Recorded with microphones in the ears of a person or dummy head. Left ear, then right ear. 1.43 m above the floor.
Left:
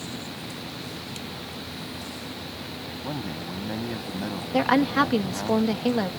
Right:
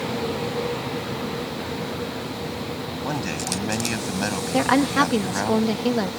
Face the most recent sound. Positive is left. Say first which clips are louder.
# right 1 dB
turn(degrees=0)  # may be behind; listen again after turning